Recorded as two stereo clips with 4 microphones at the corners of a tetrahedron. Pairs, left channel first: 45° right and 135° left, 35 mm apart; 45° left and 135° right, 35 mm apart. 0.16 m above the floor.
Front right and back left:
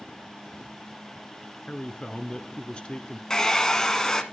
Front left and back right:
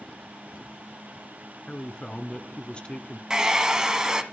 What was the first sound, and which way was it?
A man speaking, straight ahead.